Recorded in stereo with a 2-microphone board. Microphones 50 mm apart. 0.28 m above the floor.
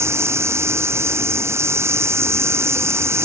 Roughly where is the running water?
Right.